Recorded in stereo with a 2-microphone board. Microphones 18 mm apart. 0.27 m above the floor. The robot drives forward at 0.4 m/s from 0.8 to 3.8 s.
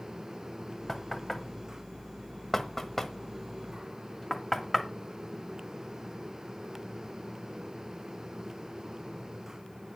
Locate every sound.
0.9 s knocking: 15° left (ahead or behind), 1.3 m